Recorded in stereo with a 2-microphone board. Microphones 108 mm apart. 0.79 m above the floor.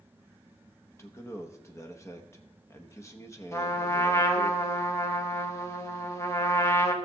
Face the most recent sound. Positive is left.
turn(degrees=25)  # may be behind; listen again after turning